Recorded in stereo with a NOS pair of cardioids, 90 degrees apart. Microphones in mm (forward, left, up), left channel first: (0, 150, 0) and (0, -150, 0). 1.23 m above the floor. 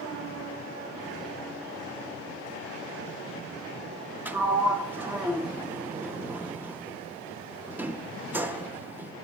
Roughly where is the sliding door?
Ahead.